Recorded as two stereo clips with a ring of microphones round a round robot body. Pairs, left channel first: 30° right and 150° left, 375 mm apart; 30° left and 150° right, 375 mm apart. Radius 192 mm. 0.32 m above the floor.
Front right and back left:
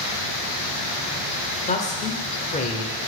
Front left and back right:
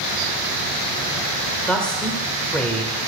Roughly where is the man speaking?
Ahead right.